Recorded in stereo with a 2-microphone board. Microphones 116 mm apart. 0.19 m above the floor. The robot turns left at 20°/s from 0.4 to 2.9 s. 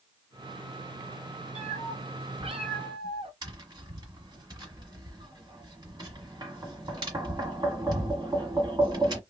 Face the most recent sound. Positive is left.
turn(degrees=-35)  # may be behind; listen again after turning